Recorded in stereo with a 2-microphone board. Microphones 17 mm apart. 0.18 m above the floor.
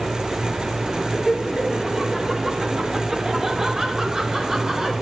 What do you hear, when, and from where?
1.1 s laughter: 30° right (ahead or behind), 3 m